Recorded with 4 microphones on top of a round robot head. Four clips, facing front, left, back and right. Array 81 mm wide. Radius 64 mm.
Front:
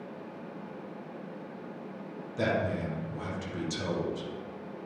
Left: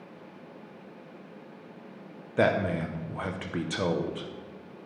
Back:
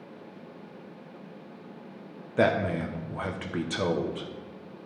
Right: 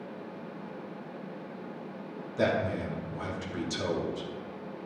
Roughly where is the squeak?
No squeak in this recording.